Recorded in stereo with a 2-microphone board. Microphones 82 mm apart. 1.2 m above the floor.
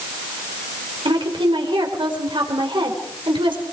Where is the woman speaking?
85° right, 4.5 m.